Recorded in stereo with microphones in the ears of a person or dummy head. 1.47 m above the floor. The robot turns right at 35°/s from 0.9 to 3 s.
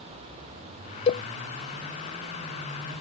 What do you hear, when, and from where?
1.1 s a cowbell: 35° left (ahead or behind); by 1.2 s 40° left (ahead or behind)